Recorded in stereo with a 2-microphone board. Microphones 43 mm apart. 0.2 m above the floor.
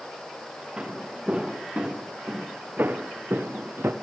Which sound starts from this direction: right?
Footsteps, at 0.8 s.